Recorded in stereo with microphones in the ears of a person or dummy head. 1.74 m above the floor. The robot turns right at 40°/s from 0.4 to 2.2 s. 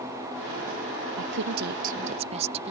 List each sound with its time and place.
1.2 s a woman speaking: 80° right; by 2.7 s 40° right